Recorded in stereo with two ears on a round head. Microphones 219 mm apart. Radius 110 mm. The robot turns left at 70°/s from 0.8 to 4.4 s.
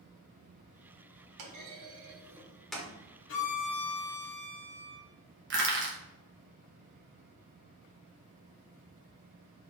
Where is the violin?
130° left, 0.9 m; by 5.0 s 50° left, 0.9 m.